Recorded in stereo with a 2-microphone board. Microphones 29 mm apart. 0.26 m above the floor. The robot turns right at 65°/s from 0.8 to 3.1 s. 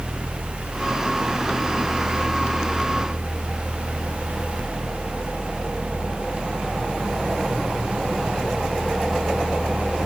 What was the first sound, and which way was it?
Only background noise.